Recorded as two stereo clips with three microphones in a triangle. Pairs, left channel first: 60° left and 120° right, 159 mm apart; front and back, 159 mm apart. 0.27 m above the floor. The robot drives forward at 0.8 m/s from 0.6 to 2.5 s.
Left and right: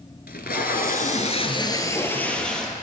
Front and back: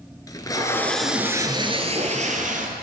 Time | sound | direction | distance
0.3 | tape being pulled | 70° left | 0.9 m